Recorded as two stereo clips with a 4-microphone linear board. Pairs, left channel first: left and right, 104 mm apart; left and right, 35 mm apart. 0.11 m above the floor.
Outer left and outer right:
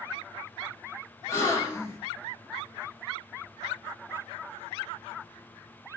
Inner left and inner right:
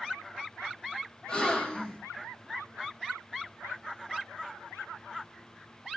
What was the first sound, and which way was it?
A gasp, 25° left (ahead or behind).